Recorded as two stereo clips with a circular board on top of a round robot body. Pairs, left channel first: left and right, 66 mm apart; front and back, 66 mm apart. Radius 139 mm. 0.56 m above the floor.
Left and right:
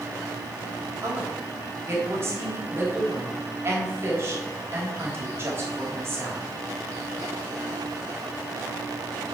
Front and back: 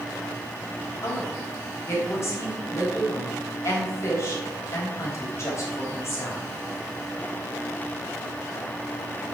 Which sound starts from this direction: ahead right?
A woman speaking, at 1.0 s.